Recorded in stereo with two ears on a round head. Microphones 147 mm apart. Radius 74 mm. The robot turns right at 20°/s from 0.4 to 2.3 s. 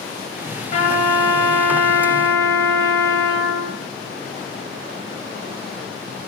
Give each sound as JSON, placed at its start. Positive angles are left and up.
{"t": 0.7, "sound": "a trumpet", "azimuth_deg": 125, "distance_m": 2.0}